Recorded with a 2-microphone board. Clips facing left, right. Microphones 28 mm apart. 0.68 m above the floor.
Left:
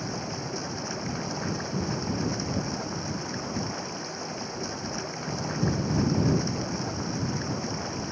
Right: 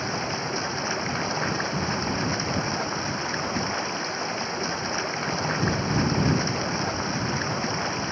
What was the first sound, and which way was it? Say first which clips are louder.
Running water: right 5 dB; 45° right (ahead or behind).